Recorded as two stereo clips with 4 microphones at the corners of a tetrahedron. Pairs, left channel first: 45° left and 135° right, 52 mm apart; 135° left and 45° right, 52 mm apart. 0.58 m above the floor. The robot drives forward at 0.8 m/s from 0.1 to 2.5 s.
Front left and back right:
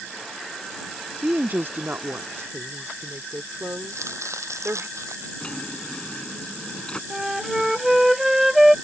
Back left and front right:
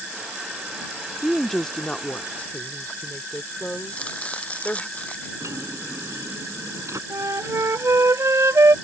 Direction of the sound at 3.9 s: 160° right.